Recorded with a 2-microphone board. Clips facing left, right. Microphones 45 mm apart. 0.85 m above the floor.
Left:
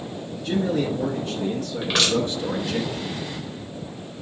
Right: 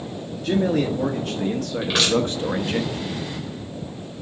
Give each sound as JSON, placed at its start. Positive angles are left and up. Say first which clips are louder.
{"t": 0.4, "sound": "a man speaking", "louder": "right 3 dB", "side_deg": -70, "distance_m": 1.5}
{"t": 1.8, "sound": "crushing", "louder": "right 1 dB", "side_deg": 0, "distance_m": 4.0}